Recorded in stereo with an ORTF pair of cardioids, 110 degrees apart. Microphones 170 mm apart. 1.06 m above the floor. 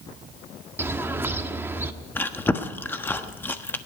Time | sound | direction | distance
0.8 | a bird | 15° right | 1.1 m
2.1 | chewing | 10° left | 1.2 m